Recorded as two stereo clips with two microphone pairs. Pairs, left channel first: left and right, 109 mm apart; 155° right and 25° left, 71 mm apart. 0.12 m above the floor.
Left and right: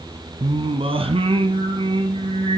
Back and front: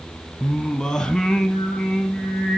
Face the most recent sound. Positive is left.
turn(degrees=-70)